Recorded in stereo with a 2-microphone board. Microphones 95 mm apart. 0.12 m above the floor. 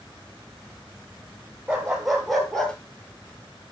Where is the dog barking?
10° right (ahead or behind), 1.6 m; by 2.8 s 10° left (ahead or behind), 1.2 m.